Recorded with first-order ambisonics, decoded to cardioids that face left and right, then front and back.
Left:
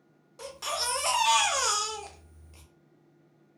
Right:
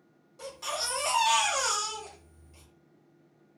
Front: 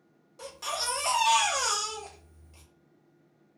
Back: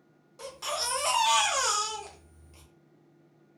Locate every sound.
0.4 s a baby crying: 105° left, 0.6 m